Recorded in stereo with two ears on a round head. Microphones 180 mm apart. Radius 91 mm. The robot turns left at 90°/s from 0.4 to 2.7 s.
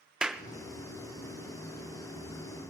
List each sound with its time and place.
0.2 s a clap: 5° right (ahead or behind), 0.5 m